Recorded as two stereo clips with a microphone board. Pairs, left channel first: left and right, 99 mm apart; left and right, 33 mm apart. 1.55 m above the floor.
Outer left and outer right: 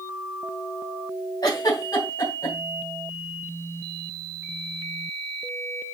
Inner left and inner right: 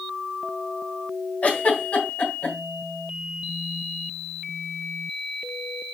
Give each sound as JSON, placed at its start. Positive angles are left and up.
{"t": 1.4, "sound": "a giggle", "side_deg": 35, "distance_m": 3.0}